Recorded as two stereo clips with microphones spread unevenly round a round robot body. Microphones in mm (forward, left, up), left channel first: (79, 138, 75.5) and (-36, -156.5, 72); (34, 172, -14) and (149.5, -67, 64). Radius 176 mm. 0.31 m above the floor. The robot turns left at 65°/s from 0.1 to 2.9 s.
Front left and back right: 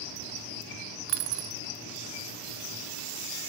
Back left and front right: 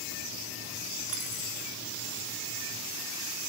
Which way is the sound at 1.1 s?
120° right.